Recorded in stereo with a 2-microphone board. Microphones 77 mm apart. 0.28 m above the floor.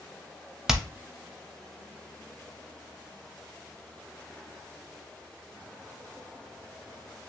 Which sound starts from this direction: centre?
Hammering, at 0.7 s.